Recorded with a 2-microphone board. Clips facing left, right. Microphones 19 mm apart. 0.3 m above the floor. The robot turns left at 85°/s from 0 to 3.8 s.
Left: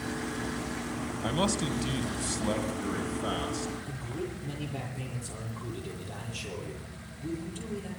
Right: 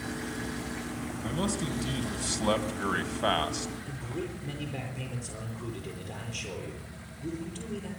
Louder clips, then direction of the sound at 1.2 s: Left 3 dB; 70° left.